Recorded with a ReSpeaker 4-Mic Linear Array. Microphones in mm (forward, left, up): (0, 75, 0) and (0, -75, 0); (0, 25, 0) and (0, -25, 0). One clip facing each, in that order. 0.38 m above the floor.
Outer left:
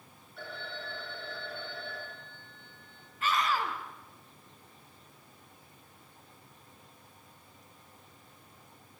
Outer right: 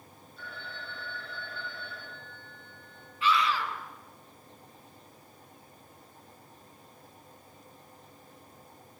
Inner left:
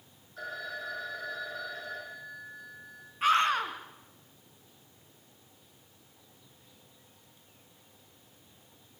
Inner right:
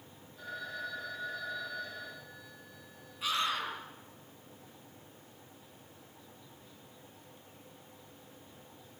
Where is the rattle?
I don't hear a rattle.